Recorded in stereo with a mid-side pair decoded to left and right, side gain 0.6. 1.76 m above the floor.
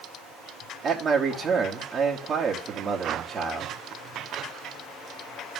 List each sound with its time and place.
0.8 s a man speaking: 35° right, 3 m